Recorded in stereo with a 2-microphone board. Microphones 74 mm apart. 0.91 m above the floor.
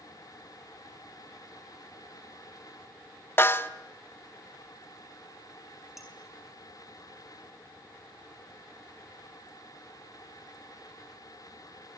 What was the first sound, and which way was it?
A snare drum, 30° left (ahead or behind).